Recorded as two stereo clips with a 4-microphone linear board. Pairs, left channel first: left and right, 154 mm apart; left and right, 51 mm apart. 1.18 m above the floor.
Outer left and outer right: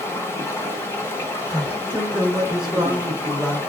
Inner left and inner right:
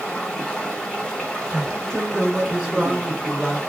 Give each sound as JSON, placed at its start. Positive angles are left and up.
{"t": 0.0, "sound": "running water", "side_deg": 15, "distance_m": 1.0}
{"t": 1.5, "sound": "a man speaking", "side_deg": 0, "distance_m": 0.8}